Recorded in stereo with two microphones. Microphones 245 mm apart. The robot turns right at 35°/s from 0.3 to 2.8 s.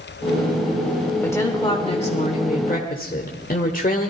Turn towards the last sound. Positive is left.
turn(degrees=70)